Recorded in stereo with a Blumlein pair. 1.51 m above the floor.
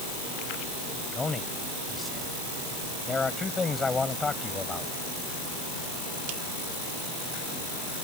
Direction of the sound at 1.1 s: 10° left.